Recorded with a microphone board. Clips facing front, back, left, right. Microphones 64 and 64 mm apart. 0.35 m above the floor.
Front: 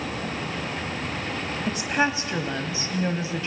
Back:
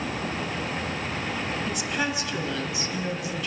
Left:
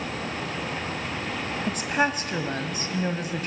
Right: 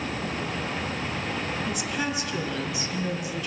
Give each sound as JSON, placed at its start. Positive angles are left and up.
{"t": 1.7, "sound": "a woman speaking", "azimuth_deg": 55, "distance_m": 1.7}